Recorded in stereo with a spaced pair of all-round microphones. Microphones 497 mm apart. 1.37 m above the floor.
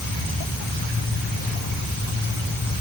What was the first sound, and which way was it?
Only background noise.